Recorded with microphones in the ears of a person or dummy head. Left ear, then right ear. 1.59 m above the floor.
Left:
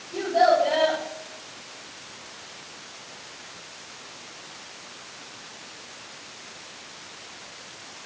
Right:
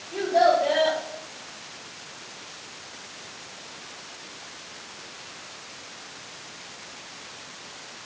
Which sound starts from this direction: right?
A child speaking, at 0.1 s.